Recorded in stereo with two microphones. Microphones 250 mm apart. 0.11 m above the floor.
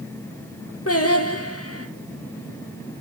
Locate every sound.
0.9 s singing: 60° left (ahead or behind), 1.3 m